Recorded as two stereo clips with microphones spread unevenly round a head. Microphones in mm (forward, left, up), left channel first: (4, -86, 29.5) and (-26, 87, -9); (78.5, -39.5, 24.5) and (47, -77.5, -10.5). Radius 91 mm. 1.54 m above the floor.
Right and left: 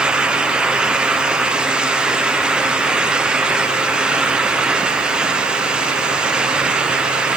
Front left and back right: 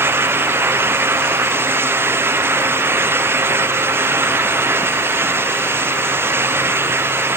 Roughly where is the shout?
I don't hear a shout.